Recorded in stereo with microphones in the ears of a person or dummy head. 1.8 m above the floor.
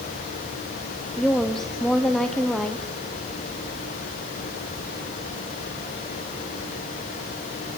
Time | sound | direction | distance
1.2 | a woman speaking | centre (ahead or behind) | 1.1 m